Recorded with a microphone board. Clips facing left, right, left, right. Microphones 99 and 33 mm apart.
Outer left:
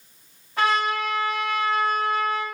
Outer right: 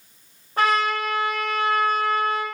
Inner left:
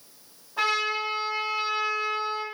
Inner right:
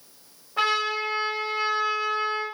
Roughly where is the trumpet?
Right.